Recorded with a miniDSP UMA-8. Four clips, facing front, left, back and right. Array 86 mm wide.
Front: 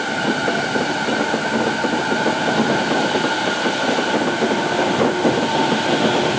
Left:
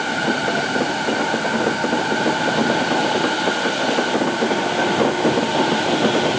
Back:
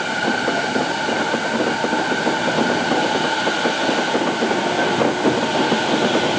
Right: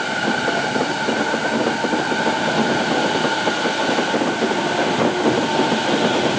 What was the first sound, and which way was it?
Only background noise.